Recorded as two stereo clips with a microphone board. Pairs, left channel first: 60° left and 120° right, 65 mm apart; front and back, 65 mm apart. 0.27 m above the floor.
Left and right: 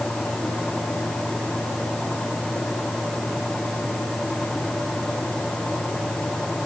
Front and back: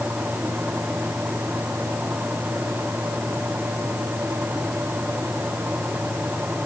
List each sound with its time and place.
Only background noise.